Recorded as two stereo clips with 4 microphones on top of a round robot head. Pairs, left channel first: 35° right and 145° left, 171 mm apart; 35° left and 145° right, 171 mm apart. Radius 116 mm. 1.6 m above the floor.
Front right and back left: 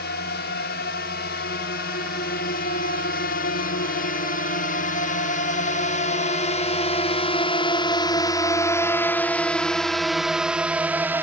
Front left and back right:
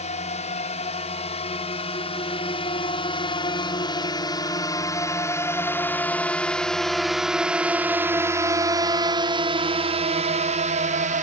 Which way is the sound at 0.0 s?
15° right.